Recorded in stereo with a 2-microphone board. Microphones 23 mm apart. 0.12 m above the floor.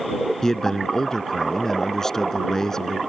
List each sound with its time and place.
0.4 s a man speaking: 25° left (ahead or behind)